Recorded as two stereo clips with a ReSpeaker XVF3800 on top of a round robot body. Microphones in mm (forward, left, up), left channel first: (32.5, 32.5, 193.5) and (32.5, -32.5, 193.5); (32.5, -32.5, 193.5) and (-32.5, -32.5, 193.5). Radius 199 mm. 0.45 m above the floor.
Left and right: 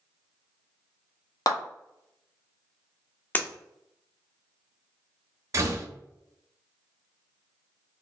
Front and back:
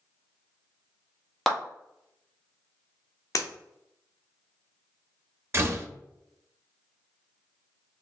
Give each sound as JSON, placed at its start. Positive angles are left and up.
{"t": 1.5, "sound": "a clap", "azimuth_deg": 85, "distance_m": 1.6}
{"t": 3.4, "sound": "breaking glass", "azimuth_deg": 25, "distance_m": 1.0}
{"t": 5.5, "sound": "a door slam", "azimuth_deg": -130, "distance_m": 0.9}